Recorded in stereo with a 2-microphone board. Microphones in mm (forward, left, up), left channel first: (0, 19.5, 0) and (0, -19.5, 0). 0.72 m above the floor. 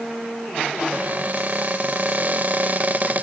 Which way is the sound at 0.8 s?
45° right (ahead or behind).